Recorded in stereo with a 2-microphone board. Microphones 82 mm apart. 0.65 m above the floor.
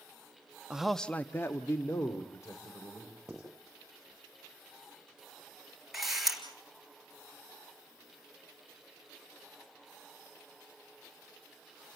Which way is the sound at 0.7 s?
10° right (ahead or behind).